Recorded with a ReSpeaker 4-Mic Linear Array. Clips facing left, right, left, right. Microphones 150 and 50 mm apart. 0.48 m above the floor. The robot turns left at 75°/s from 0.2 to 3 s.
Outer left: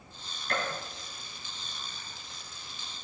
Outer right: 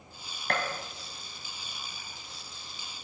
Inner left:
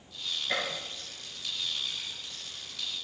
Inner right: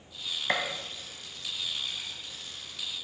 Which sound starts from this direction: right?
A gunshot, at 0.5 s.